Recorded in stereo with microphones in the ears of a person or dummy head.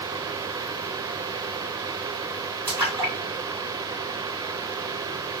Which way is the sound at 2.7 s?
20° right (ahead or behind).